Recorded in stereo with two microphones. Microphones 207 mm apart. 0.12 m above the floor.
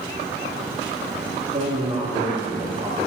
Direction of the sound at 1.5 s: 35° right (ahead or behind).